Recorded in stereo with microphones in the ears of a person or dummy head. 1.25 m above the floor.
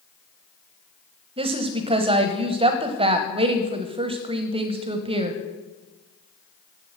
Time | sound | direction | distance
1.4 | a woman speaking | 35° right (ahead or behind) | 1.0 m